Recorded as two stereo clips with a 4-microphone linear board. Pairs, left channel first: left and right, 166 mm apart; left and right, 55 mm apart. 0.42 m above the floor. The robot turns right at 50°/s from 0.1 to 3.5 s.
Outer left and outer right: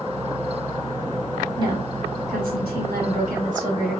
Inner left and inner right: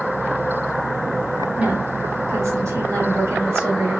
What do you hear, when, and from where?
1.6 s a woman speaking: 155° right, 2.5 m; by 4.0 s 60° right, 2.5 m